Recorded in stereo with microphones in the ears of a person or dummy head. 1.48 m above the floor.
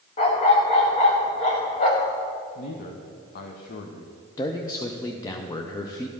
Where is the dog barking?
25° left (ahead or behind), 0.9 m.